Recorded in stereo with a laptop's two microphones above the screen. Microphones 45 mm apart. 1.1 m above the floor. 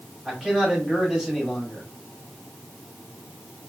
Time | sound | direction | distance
0.2 | a man speaking | 15° right (ahead or behind) | 2 m